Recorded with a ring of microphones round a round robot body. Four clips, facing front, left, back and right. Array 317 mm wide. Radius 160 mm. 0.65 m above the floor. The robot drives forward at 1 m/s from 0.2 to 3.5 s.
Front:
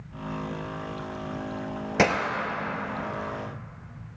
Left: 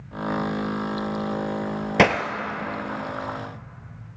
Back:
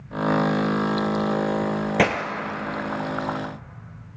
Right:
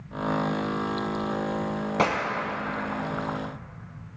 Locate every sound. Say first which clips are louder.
2.0 s breaking glass: left 6 dB, even; 100° left, 0.7 m; by 2.2 s 130° left, 0.8 m